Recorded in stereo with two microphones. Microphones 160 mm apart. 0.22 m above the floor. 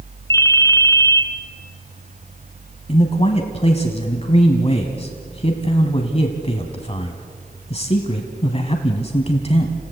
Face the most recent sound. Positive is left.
turn(degrees=40)  # may be behind; listen again after turning